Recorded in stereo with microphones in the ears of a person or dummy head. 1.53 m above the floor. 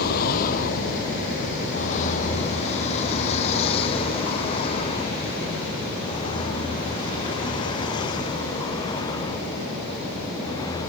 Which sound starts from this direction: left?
A vehicle, at 0.0 s.